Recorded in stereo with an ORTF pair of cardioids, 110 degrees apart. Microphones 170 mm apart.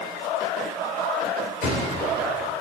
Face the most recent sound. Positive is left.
turn(degrees=65)